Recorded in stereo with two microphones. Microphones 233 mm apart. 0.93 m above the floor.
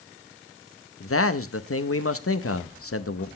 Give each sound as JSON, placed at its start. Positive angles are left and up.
{"t": 1.0, "sound": "a man speaking", "side_deg": 75, "distance_m": 0.8}